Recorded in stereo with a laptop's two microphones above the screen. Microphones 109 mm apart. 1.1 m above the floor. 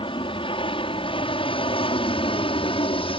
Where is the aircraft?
50° left (ahead or behind); by 3.2 s 55° left (ahead or behind).